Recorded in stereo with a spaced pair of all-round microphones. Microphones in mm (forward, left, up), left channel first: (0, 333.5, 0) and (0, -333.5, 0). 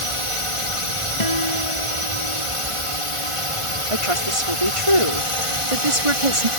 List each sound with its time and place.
0.0 s a drone: 50° left (ahead or behind)
1.2 s a guitar: 55° left (ahead or behind)
3.9 s a woman speaking: 50° right (ahead or behind)